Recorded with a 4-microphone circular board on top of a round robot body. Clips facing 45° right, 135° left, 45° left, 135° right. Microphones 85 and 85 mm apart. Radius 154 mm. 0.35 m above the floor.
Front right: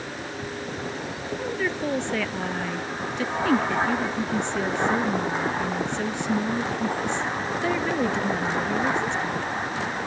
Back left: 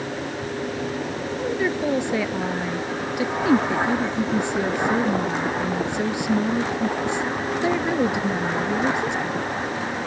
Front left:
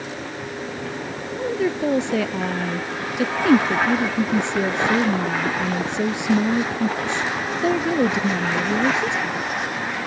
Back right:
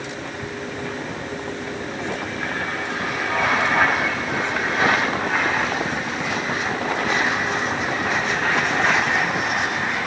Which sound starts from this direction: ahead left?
A woman speaking, at 1.4 s.